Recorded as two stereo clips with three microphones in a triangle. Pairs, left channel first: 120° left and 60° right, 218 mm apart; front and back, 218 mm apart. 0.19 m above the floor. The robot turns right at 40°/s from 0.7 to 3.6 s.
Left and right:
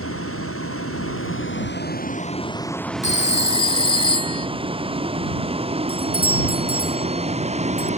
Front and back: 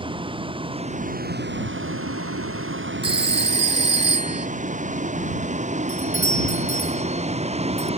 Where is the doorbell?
5° left.